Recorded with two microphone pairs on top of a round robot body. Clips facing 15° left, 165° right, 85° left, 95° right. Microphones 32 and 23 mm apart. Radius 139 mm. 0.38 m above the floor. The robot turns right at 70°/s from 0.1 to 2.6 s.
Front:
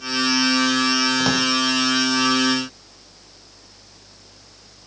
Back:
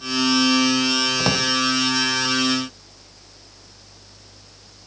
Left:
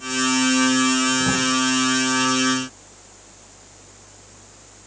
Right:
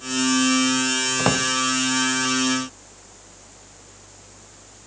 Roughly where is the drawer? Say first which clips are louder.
Front 1 dB, even; right.